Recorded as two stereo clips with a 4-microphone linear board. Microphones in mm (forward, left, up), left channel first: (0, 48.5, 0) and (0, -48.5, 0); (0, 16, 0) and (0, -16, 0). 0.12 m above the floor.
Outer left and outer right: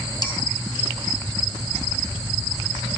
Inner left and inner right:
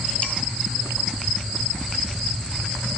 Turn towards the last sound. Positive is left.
turn(degrees=45)  # may be behind; listen again after turning